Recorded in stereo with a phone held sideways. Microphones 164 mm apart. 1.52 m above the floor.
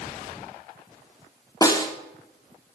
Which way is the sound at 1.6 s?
25° left (ahead or behind).